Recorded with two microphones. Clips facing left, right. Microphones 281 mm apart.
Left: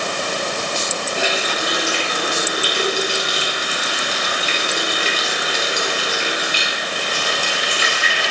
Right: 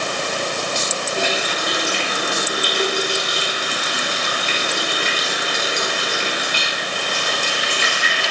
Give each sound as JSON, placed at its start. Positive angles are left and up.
{"t": 1.2, "sound": "a running tap", "side_deg": 5, "distance_m": 0.8}